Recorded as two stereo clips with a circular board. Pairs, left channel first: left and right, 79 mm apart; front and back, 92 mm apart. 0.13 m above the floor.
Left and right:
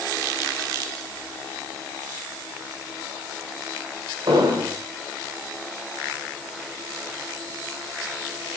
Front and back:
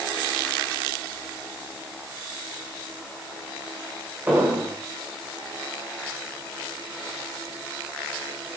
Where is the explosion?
110° right, 8.5 m.